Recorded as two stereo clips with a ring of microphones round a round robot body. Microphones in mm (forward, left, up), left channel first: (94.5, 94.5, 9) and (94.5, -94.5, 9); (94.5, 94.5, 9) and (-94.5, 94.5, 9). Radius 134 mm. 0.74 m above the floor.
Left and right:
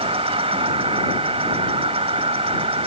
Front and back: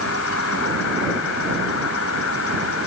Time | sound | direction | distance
0.0 | an insect | 30° right | ?